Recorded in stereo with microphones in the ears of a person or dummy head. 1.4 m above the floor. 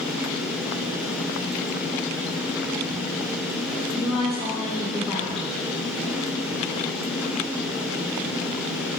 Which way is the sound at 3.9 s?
30° right (ahead or behind).